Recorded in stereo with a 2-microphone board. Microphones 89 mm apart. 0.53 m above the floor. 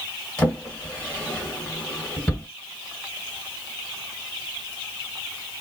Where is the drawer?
10° left (ahead or behind), 1.5 m.